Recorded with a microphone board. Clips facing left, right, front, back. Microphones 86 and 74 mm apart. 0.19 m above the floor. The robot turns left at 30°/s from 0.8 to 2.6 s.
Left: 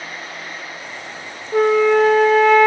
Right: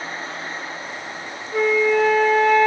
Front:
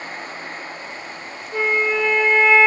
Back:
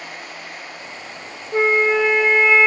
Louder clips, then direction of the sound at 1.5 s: Left 4 dB, back 4 dB; 125° left.